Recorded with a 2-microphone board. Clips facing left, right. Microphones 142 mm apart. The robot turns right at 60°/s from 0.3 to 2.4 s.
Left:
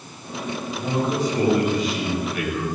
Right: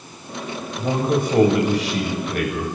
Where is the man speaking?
150° right, 8 m; by 2.7 s 50° right, 8 m.